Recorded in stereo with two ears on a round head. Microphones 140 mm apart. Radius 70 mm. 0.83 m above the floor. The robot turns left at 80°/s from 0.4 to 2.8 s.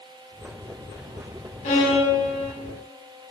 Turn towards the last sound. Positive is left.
turn(degrees=-45)